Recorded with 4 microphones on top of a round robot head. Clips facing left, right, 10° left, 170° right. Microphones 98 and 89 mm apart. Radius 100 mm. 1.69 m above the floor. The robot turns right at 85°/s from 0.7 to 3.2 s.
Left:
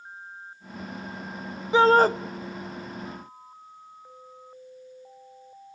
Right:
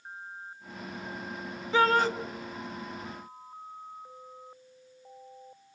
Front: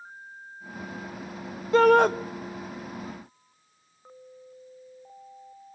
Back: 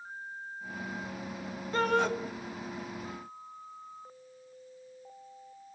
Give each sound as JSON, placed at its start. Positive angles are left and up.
{"t": 1.7, "sound": "a shout", "azimuth_deg": 20, "distance_m": 0.9}